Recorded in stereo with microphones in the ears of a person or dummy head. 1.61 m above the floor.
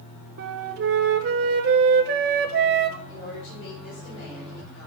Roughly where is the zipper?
I don't hear a zipper.